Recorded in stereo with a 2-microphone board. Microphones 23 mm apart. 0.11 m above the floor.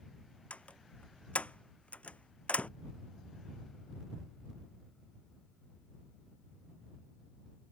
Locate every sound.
0.5 s a door slam: 80° left